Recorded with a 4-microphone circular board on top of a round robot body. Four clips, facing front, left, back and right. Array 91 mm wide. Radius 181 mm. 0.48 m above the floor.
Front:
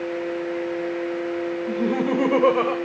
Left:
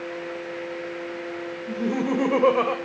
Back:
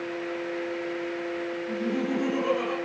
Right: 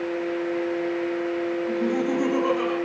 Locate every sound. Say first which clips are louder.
1.7 s laughter: left 2 dB, front 6 dB; 20° left, 2.5 m; by 2.8 s 50° left, 2.5 m